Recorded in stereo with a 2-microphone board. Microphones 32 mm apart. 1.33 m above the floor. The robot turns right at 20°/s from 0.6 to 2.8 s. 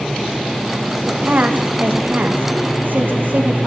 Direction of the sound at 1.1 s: 120° right.